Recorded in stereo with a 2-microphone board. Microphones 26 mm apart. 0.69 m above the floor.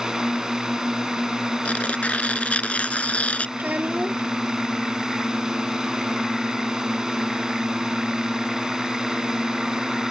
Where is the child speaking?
85° right.